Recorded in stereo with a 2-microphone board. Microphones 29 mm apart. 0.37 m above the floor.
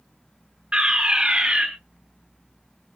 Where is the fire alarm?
40° right (ahead or behind), 3.5 m.